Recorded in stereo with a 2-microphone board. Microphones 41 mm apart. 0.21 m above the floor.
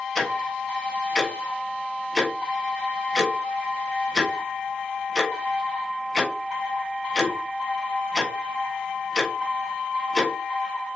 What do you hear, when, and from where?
0.1 s ticking: 5° left (ahead or behind), 1.2 m